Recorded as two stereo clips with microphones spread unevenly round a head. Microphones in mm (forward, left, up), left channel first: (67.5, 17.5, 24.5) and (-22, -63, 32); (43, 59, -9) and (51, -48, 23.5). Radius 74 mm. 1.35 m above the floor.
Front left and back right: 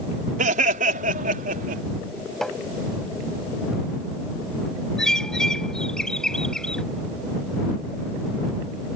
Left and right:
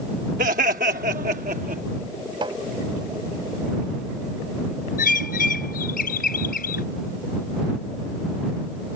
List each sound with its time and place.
0.4 s laughter: 120° right; by 1.8 s 130° right
2.4 s tapping: 45° right
5.0 s a bird: 130° left